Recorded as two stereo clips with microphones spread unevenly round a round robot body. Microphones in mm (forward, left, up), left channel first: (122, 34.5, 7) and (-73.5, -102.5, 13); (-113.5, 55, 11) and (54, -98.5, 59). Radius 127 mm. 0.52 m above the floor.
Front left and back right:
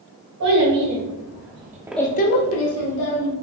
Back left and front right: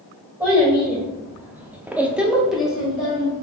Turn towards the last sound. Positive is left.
turn(degrees=50)